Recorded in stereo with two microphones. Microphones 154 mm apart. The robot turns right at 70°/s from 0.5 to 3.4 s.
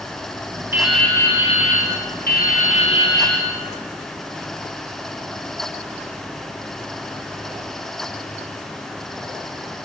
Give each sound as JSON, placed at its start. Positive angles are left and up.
{"t": 0.7, "sound": "dripping", "azimuth_deg": -15, "distance_m": 4.5}